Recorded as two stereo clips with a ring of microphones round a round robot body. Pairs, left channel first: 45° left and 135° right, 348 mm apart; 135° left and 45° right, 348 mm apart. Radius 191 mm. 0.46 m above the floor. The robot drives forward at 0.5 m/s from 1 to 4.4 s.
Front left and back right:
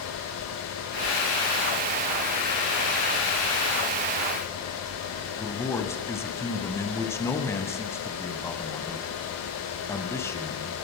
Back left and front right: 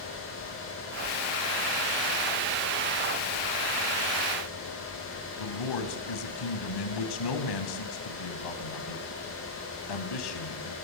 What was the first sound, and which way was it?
A man speaking, 130° left.